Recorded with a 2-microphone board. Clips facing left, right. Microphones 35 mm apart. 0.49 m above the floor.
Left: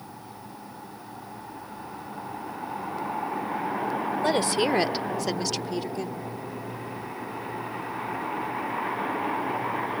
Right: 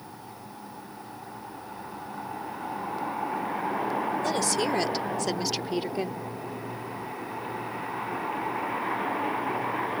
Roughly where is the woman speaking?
Left.